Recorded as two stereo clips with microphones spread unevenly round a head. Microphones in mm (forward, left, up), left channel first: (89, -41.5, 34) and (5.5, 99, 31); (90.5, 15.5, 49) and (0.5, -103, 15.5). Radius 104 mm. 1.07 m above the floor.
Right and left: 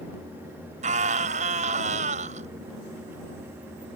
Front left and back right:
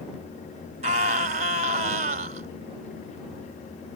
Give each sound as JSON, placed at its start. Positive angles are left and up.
{"t": 0.8, "sound": "a scream", "azimuth_deg": 180}